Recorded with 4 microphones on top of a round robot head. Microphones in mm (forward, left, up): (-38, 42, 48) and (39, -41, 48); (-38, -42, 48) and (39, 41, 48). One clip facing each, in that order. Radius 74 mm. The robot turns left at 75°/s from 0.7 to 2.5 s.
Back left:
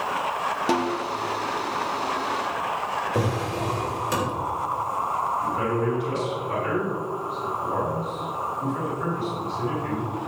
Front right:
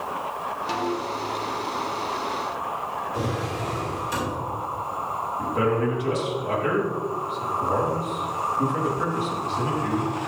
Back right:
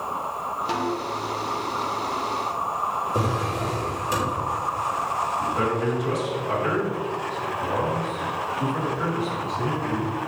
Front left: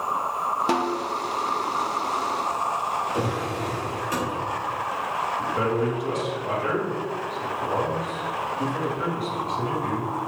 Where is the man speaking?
40° right, 4.5 m.